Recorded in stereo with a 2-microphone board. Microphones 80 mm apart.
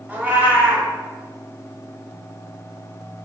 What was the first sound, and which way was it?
A cat meowing, 20° right (ahead or behind).